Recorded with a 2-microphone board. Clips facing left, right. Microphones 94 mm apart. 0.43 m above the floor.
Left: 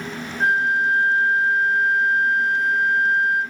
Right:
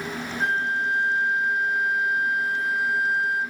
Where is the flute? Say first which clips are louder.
Left 6 dB; 30° left (ahead or behind), 1.9 m.